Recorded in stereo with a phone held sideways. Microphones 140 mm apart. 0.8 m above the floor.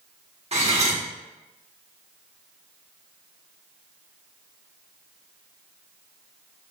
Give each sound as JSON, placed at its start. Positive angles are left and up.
{"t": 0.5, "sound": "cutlery clinking", "side_deg": -50, "distance_m": 0.8}